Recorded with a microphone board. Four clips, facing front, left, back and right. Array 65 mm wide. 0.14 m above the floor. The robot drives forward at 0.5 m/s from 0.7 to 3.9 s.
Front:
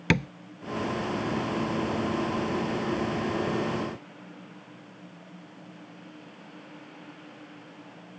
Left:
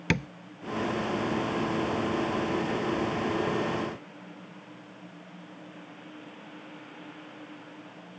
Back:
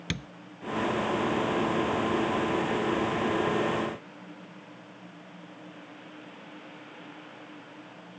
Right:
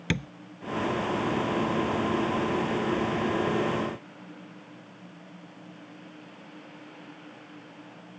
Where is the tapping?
20° left.